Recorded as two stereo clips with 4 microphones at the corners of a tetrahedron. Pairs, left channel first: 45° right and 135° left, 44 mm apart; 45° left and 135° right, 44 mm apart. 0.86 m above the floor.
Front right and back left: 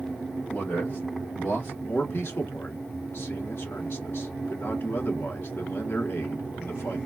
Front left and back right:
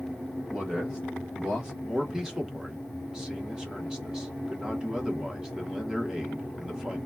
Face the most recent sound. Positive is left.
turn(degrees=-60)